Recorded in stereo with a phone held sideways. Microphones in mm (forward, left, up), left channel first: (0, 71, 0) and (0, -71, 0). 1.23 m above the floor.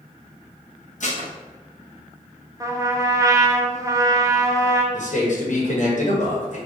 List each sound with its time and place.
1.0 s dishes clattering: 55° left (ahead or behind), 0.9 m
2.6 s a trumpet: 25° right (ahead or behind), 0.6 m
4.9 s a man speaking: 55° left (ahead or behind), 1.3 m